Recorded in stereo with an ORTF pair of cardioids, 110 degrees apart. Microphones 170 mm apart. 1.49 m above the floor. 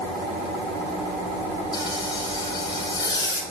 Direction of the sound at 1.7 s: 25° left.